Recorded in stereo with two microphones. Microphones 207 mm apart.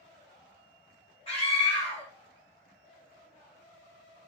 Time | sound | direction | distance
1.3 | a scream | 30° left (ahead or behind) | 2.5 m